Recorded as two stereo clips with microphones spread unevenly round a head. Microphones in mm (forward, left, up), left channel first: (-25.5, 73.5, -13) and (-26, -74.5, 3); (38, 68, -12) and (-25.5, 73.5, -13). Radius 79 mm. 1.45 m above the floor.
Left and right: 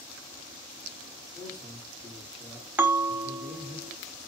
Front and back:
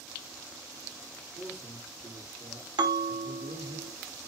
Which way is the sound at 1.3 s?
165° right.